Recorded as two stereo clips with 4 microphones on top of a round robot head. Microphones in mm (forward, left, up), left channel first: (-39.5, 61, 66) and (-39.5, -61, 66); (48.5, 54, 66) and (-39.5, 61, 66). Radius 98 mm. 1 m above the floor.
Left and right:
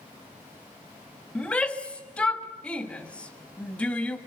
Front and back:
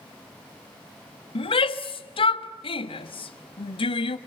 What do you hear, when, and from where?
1.4 s a shout: 10° left, 1.5 m